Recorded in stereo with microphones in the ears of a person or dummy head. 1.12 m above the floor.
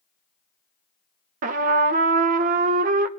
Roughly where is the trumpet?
Right.